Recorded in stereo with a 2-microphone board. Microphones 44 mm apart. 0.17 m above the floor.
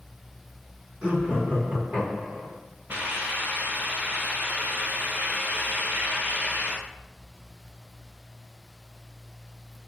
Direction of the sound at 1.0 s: 30° right (ahead or behind).